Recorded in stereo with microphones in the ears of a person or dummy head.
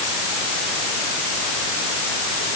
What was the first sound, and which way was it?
Only background noise.